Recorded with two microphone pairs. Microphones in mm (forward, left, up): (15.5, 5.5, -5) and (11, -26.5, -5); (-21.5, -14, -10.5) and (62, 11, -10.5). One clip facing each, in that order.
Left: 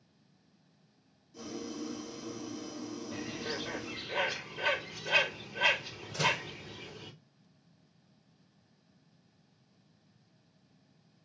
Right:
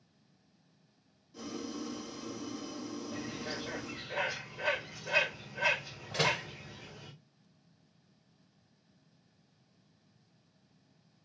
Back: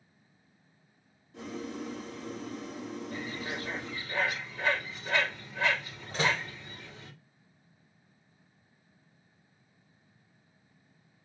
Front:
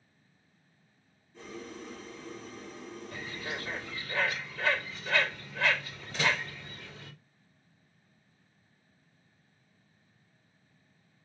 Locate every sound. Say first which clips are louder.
1.3 s boiling: even, back 5 dB; 175° right, 2 m
3.1 s a bird: left 4 dB, front 1 dB; 125° left, 3 m
6.1 s a door slam: even, back 1 dB; 125° right, 1.4 m